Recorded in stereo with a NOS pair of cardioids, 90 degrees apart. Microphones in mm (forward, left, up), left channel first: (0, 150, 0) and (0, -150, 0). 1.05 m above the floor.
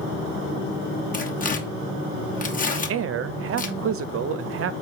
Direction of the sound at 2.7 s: 50° right.